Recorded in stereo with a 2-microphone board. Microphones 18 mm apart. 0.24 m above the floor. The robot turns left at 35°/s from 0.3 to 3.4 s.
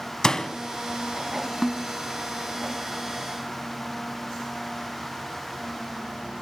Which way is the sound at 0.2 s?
35° left (ahead or behind).